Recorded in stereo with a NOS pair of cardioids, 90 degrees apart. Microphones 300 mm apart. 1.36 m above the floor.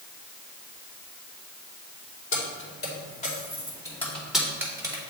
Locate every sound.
2.3 s keys jangling: 45° left, 2.5 m; by 5.0 s 15° right, 2.5 m